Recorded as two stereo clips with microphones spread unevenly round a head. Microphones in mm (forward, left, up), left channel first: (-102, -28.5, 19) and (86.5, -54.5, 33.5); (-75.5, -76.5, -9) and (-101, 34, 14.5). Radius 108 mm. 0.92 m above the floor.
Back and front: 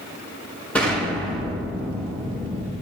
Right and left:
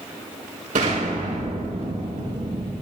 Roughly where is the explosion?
Left.